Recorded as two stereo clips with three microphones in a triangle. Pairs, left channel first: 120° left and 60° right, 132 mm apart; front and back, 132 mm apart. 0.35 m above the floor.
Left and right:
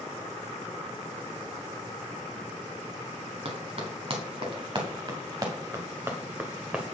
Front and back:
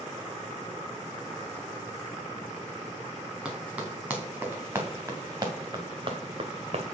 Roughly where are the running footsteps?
Right.